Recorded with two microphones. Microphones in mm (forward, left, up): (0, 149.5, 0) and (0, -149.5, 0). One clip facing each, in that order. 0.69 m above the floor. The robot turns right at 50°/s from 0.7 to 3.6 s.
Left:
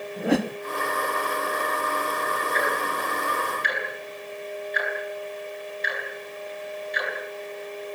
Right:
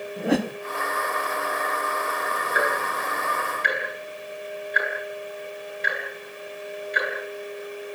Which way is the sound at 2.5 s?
10° right (ahead or behind).